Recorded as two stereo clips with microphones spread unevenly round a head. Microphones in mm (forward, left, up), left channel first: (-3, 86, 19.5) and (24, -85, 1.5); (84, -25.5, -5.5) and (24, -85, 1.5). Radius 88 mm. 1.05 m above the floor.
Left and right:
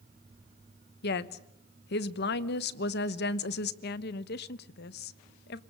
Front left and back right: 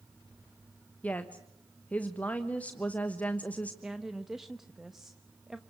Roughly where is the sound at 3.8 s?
Behind left.